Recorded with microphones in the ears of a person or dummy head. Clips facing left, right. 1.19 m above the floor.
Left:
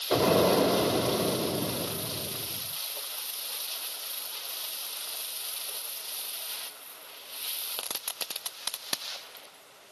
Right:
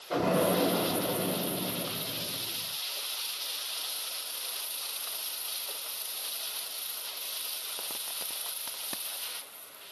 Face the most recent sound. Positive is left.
turn(degrees=60)  # may be behind; listen again after turning